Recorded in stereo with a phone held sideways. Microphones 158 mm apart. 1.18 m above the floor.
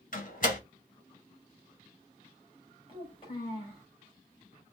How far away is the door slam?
About 1.5 m.